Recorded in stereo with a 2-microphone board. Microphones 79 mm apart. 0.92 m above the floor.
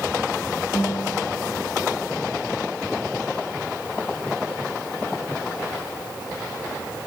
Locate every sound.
0.7 s a guitar: 45° left (ahead or behind), 1.9 m